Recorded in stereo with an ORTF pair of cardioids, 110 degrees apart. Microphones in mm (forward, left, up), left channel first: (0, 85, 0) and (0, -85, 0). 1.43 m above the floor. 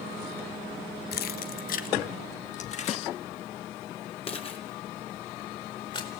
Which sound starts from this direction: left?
Keys jangling, at 1.1 s.